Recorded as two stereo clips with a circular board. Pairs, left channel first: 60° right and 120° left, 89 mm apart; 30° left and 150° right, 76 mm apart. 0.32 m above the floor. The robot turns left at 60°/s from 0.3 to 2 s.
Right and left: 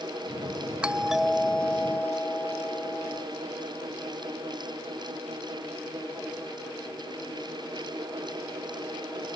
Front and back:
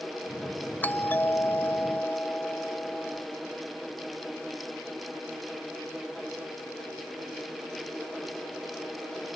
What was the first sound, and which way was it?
A doorbell, 60° left.